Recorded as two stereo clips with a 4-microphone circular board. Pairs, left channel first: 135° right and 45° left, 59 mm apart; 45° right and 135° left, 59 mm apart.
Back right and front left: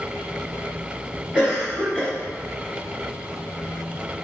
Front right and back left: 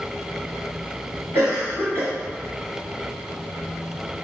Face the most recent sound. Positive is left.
turn(degrees=155)